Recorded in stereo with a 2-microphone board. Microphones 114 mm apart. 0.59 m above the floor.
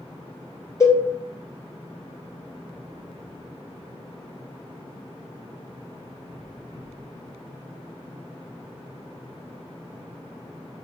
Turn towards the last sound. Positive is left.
turn(degrees=30)  # may be behind; listen again after turning